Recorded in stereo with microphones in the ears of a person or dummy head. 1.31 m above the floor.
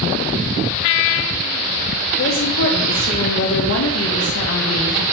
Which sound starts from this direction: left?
A woman speaking, at 2.2 s.